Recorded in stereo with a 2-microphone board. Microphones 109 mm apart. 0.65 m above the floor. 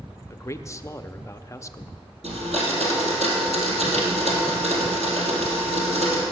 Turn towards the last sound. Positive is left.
turn(degrees=-85)